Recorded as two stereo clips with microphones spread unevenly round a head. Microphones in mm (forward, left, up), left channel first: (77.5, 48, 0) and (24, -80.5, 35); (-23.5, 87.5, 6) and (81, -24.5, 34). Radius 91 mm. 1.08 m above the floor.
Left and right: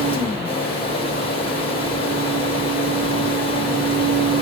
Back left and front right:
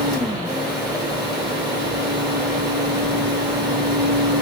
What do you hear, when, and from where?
0.0 s a fan: 20° left, 1.5 m